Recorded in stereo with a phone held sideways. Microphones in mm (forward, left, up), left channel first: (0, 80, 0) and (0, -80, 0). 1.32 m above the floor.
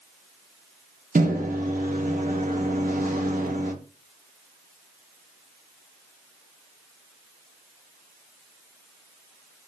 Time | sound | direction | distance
1.1 | a microwave | 60° right (ahead or behind) | 0.6 m